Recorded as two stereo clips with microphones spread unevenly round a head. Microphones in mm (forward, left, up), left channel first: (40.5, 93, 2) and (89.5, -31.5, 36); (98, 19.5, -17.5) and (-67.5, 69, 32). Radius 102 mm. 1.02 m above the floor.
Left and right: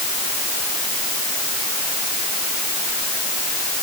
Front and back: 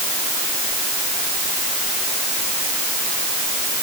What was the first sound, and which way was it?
Only background noise.